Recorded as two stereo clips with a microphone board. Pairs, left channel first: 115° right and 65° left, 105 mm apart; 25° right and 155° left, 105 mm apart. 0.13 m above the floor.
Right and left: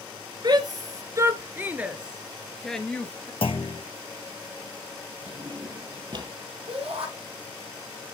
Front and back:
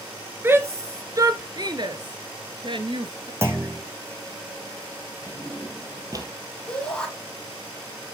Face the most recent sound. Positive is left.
turn(degrees=60)